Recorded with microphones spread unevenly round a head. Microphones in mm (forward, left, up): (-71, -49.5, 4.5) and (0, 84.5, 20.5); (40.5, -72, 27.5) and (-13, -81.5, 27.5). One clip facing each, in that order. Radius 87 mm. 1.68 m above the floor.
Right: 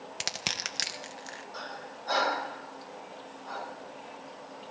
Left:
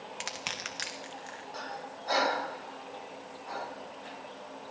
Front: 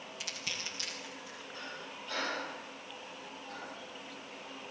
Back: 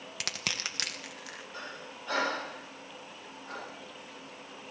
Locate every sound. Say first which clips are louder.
0.2 s crushing: right 1 dB, back 6 dB; 165° right, 1.4 m
1.5 s breathing: left 2 dB, even; 145° left, 2.5 m